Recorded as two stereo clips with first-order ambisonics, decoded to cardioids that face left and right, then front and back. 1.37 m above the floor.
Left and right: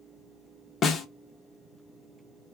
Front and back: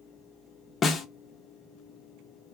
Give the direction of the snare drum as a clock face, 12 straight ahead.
10 o'clock.